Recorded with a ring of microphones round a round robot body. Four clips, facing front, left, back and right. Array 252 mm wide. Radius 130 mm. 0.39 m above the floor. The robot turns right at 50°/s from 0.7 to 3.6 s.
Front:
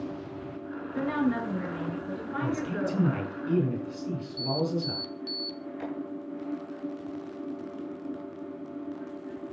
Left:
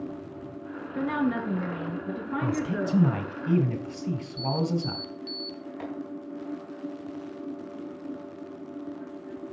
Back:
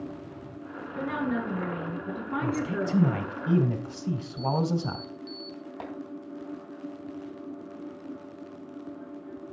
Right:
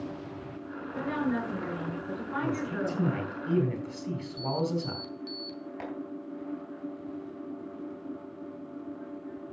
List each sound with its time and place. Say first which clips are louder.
0.9 s a woman speaking: left 3 dB, front 2 dB; 80° left, 7 m; by 3.4 s 160° right, 7 m
2.4 s a man speaking: left 3 dB, even; 100° left, 2.5 m; by 5.0 s 160° left, 2.5 m
4.4 s an alarm: left 2 dB, back 1 dB; 20° left, 2 m
5.8 s tapping: left 2 dB, front 3 dB; 150° right, 4.5 m